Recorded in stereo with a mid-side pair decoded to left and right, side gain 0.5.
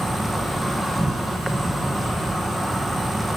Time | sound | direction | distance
0.0 | an insect | 5° right | 1.8 m